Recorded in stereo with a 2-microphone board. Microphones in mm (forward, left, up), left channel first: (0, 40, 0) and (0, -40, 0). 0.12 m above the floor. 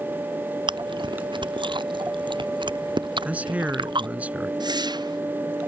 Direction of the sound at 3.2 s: 20° right (ahead or behind).